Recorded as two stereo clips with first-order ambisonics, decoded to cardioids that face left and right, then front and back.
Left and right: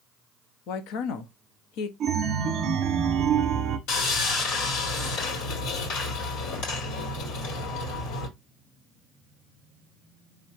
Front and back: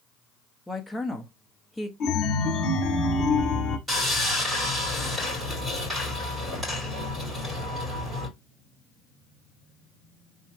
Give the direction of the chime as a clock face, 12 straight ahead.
1 o'clock.